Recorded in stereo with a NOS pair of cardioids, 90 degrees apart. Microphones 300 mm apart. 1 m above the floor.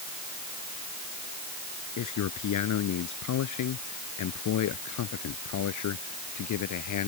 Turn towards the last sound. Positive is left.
turn(degrees=70)